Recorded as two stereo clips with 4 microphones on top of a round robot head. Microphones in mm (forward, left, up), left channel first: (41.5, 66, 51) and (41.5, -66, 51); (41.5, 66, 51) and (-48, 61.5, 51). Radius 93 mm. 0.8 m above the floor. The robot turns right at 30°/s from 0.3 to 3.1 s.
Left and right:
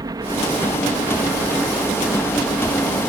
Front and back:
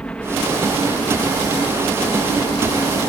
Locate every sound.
0.0 s a helicopter: 65° right; by 3.1 s 20° left